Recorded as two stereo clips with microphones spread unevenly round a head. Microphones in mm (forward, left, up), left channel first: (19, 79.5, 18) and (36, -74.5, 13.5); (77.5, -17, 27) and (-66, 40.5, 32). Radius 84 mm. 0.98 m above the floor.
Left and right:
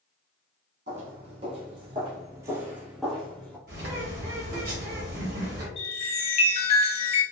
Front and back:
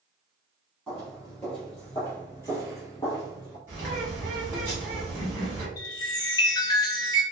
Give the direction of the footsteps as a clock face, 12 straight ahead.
4 o'clock.